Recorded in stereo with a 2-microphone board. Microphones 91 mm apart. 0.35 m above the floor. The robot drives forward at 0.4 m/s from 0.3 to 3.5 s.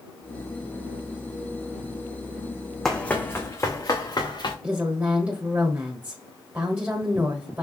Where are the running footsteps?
5° left (ahead or behind), 0.9 m; by 4.5 s 50° left (ahead or behind), 2.0 m.